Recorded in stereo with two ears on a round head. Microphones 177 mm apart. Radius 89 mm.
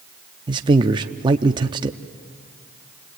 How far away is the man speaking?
About 0.6 m.